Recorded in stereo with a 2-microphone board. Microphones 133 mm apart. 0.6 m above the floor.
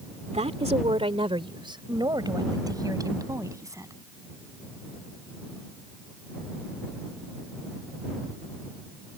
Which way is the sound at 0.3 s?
55° right (ahead or behind).